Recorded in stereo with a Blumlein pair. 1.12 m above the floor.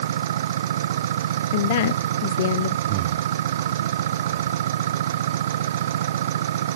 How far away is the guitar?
No guitar in this recording.